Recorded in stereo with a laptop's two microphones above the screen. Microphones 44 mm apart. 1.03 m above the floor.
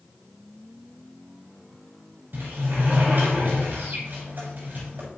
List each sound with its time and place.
2.3 s a sliding door: 50° right (ahead or behind), 6.5 m